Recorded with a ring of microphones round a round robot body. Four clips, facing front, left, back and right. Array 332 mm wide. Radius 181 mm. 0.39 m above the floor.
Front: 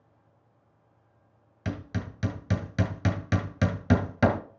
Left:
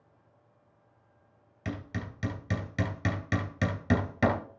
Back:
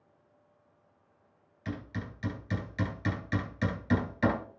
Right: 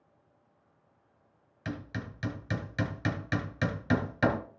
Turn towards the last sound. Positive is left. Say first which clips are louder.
# left 1 dB, front 4 dB
turn(degrees=20)